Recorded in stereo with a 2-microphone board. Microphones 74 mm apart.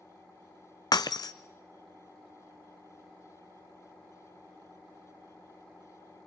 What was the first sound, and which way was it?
Breaking glass, 60° left (ahead or behind).